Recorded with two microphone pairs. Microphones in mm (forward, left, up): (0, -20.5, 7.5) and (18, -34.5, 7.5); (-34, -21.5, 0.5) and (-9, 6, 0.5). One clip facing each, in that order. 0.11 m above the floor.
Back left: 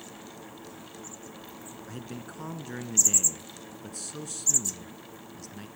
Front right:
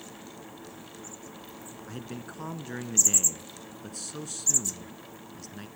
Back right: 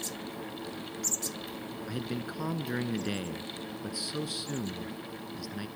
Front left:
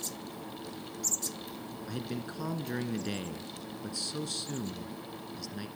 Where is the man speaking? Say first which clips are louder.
Front right 1 dB, back right 2 dB; 95° right, 1.2 m.